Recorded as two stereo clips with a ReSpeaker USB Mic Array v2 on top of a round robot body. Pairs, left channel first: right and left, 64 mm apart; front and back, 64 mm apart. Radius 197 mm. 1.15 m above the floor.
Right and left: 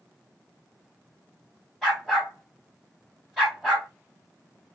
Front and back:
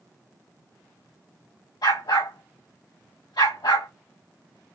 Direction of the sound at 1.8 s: 5° left.